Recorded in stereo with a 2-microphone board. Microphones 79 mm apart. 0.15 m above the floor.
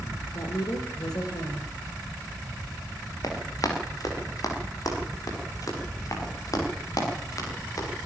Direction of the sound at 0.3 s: 65° left (ahead or behind).